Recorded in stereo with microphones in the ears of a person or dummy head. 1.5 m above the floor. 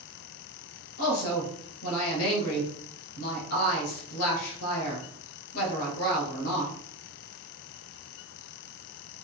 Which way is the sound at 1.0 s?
85° left.